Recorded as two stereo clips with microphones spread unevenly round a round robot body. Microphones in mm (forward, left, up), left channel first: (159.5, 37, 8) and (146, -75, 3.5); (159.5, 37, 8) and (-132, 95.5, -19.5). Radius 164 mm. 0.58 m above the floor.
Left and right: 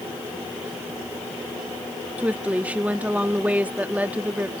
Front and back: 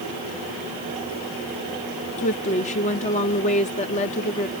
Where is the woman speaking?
50° right.